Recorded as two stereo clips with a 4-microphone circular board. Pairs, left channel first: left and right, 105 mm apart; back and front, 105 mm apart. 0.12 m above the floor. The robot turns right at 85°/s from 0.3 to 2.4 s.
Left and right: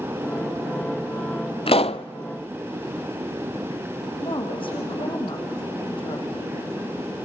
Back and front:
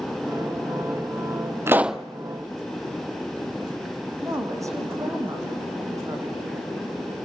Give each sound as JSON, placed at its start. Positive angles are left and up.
{"t": 1.7, "sound": "a pop", "azimuth_deg": 65, "distance_m": 0.6}
{"t": 4.2, "sound": "a woman speaking", "azimuth_deg": 60, "distance_m": 5.0}